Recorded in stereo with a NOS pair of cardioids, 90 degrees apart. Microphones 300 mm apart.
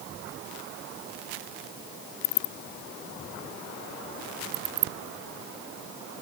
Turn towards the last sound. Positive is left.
No sound to turn to.